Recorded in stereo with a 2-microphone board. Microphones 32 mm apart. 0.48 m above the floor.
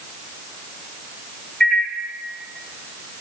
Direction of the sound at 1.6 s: 35° left (ahead or behind).